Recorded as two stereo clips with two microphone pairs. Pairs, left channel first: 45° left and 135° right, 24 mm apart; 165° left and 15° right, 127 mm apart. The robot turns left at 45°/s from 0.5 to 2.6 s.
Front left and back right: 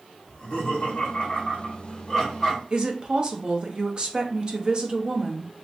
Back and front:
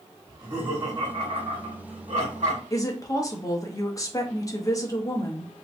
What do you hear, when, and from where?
0.3 s laughter: 60° left, 1.4 m; by 2.6 s 35° right, 1.4 m
2.7 s a woman speaking: 155° right, 0.6 m